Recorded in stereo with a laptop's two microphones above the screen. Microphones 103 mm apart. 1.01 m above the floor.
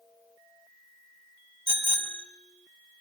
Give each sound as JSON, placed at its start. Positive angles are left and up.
{"t": 1.7, "sound": "a bicycle bell", "side_deg": 45, "distance_m": 3.0}